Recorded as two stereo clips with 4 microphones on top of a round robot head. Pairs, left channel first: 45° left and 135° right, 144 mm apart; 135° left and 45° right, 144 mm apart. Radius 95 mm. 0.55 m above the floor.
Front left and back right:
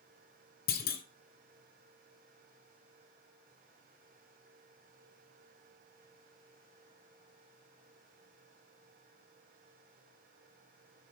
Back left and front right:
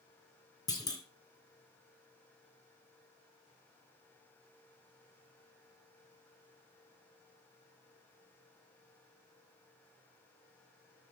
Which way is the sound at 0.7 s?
65° left.